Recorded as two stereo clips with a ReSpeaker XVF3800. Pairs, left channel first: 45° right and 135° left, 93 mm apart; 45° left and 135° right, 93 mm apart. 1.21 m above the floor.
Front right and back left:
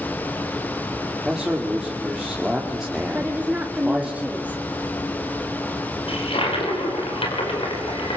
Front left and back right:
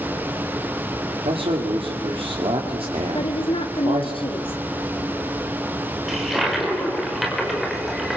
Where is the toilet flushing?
45° right, 5 m.